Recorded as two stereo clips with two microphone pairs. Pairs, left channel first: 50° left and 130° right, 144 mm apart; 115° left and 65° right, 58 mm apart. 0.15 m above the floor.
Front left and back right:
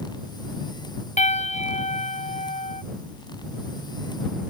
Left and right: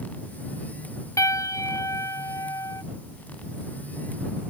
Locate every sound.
1.2 s a piano: 90° left